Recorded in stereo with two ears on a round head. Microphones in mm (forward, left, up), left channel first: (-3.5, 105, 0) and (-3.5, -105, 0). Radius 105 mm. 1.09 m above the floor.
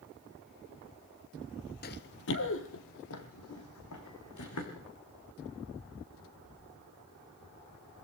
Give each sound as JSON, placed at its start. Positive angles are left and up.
{"t": 1.8, "sound": "running footsteps", "side_deg": 40, "distance_m": 1.4}